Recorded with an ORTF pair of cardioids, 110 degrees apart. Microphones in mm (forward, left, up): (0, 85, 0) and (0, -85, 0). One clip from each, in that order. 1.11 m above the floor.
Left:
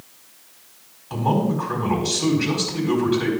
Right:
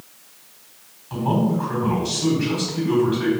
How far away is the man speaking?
About 4.5 m.